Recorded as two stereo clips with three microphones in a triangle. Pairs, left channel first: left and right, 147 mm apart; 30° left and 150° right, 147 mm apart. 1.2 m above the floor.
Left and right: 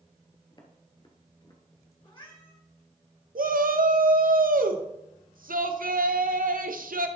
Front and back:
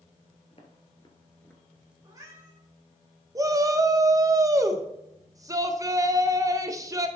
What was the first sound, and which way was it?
Footsteps, 50° left.